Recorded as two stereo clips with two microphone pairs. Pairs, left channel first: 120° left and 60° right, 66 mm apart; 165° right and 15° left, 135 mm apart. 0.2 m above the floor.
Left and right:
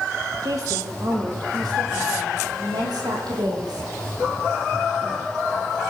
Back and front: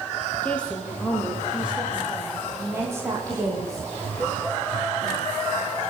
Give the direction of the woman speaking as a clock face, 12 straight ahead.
3 o'clock.